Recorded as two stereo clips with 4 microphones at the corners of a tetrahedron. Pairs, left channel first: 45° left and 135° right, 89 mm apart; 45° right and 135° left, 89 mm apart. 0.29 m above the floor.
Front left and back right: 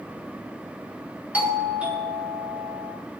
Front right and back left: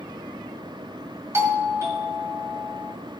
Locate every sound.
1.3 s a doorbell: 160° left, 1.7 m